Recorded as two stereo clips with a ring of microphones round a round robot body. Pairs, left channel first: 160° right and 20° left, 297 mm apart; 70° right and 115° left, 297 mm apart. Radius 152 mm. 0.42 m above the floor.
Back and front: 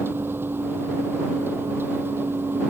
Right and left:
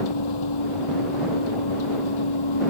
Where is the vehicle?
60° right.